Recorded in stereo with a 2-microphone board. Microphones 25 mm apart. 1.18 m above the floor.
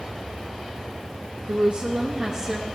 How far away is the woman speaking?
About 0.9 m.